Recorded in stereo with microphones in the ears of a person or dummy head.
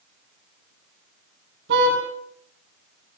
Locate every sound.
1.7 s a car horn: 60° right (ahead or behind), 8 m